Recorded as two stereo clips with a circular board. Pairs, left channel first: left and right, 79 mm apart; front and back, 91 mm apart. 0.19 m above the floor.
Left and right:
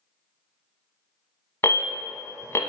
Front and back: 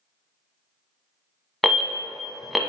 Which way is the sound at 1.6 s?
90° left.